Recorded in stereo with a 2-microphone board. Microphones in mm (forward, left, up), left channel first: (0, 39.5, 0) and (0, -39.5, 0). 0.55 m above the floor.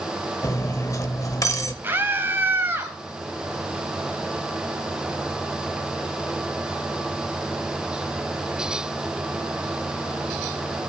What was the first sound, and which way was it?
Cutlery clinking, 40° left (ahead or behind).